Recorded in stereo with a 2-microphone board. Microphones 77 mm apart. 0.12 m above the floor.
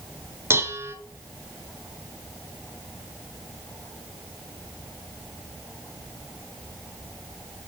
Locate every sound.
0.5 s dishes clattering: 35° right (ahead or behind), 1.2 m